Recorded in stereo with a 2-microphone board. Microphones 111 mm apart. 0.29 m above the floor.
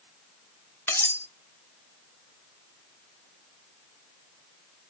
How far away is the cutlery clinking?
About 0.6 m.